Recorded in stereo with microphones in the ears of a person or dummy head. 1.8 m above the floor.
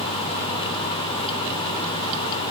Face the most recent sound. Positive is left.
No sound to turn to.